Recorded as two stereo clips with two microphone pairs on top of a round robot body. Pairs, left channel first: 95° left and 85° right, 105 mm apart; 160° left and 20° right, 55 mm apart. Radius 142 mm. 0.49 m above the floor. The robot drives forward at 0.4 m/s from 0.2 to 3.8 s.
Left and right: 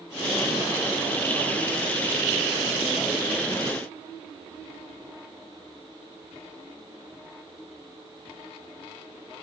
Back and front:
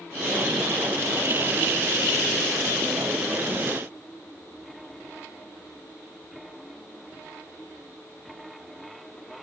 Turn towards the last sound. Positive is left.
No sound to turn to.